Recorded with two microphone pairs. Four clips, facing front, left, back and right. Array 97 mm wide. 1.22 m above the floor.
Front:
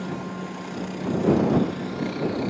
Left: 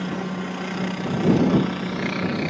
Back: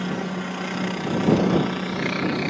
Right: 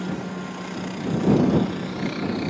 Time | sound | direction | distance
0.0 | a helicopter | 155° left | ?